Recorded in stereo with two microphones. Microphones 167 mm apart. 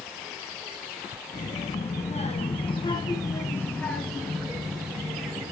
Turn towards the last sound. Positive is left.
turn(degrees=-15)  # may be behind; listen again after turning